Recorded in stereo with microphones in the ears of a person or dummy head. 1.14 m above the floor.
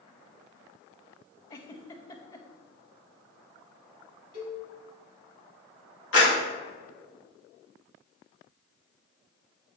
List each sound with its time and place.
1.5 s a giggle: 15° left (ahead or behind), 0.7 m
4.3 s a cowbell: 85° left, 2.5 m
6.1 s a clap: 80° left, 1.9 m